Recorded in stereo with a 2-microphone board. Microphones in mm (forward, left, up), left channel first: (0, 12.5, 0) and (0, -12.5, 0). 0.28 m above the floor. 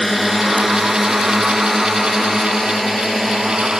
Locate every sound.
0.0 s a drone: centre (ahead or behind)